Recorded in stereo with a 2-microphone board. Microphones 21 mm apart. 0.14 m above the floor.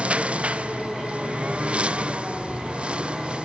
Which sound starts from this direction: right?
A lawn mower, at 0.0 s.